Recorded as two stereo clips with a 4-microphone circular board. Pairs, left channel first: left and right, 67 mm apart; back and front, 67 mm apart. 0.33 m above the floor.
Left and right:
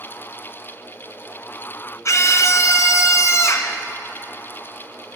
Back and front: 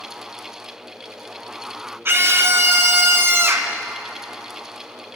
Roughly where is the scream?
Ahead left.